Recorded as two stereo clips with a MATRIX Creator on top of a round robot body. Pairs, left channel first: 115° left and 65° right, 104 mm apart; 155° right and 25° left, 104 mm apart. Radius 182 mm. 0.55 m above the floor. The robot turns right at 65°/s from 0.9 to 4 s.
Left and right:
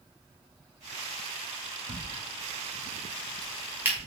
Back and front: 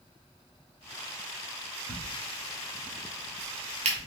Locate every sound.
1.9 s a crack: 125° right, 0.9 m; by 4.0 s 15° left, 0.9 m